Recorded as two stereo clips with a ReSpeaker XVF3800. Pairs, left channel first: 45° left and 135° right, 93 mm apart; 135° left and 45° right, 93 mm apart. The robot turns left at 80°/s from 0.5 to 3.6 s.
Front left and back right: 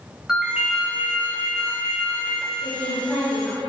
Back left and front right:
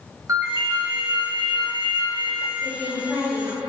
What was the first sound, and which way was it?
A ringtone, 60° right.